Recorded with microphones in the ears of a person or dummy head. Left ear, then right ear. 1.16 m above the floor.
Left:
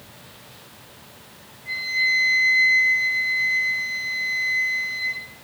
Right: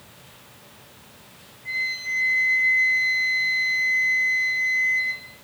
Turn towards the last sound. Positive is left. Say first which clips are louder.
# left 5 dB
turn(degrees=-70)  # may be behind; listen again after turning